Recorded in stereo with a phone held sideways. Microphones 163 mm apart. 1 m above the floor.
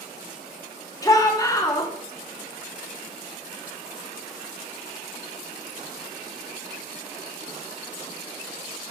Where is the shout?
20° left (ahead or behind), 3 m.